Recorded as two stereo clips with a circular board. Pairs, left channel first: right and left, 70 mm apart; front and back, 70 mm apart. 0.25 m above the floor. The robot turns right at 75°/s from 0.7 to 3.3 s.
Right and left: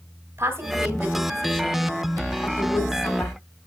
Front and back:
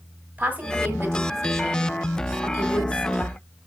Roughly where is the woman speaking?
Behind left.